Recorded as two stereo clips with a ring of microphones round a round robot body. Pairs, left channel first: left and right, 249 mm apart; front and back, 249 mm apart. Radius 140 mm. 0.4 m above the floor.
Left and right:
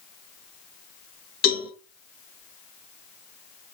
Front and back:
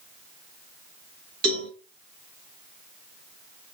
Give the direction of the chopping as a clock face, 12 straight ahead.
I don't hear chopping.